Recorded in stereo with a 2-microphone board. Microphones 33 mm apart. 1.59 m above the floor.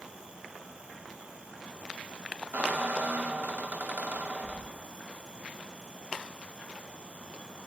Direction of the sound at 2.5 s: 55° right (ahead or behind).